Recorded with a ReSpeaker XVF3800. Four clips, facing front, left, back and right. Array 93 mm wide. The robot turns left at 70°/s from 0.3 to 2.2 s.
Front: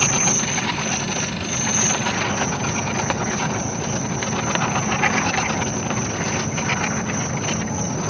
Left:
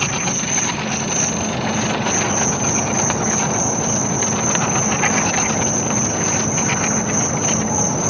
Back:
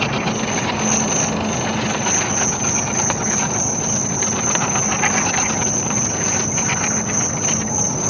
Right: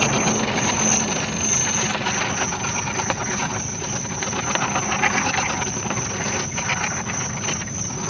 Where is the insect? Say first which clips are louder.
Right 3 dB, back 2 dB; 130° right; by 8.1 s 100° left.